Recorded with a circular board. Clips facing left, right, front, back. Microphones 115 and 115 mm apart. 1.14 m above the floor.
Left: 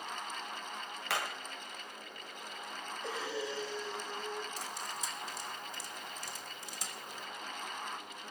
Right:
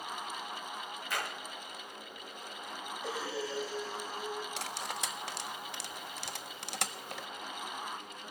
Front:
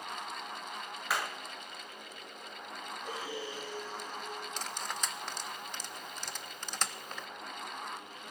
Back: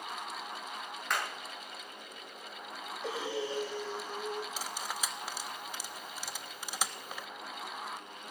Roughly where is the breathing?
Behind.